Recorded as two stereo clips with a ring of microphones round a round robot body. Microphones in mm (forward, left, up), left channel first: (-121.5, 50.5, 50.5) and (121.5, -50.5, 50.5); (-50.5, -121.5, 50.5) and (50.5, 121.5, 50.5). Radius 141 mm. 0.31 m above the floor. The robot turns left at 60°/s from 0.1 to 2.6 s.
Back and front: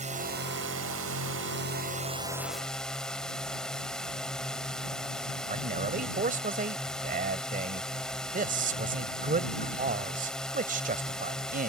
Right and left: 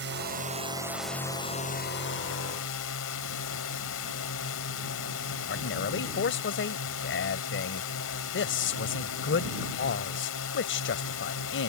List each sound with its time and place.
0.0 s a drone: 35° left; by 11.7 s 115° right
5.5 s a man speaking: 80° right